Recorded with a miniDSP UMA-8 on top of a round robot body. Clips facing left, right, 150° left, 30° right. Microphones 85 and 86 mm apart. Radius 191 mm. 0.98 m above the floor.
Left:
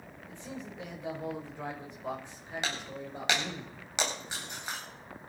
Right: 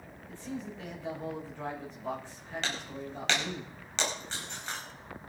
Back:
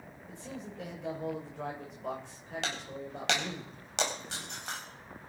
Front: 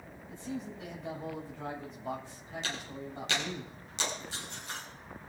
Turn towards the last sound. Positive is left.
turn(degrees=170)